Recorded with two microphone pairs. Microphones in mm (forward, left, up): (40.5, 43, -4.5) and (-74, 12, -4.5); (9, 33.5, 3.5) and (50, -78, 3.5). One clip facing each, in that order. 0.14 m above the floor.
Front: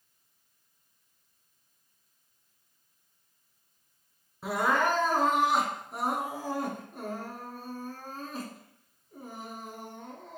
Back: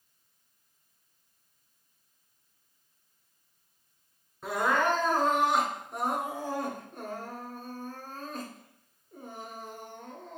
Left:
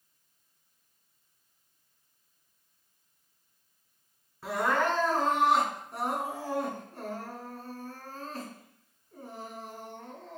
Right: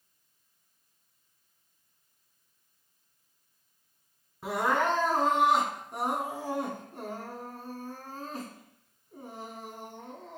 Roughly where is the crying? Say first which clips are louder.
Even, even; ahead right.